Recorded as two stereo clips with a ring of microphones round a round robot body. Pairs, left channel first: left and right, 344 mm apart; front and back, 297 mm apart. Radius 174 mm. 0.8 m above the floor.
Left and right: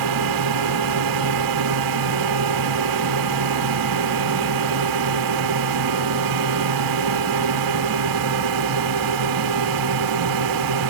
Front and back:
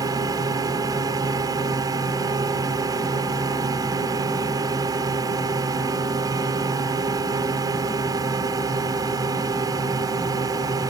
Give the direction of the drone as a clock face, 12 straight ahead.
3 o'clock.